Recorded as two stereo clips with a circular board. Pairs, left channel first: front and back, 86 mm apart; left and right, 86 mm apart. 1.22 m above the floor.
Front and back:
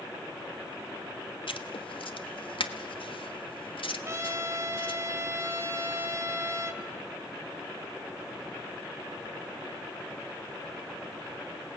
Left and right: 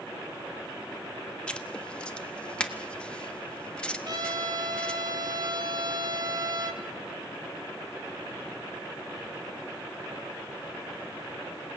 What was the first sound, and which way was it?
Writing, 10° left.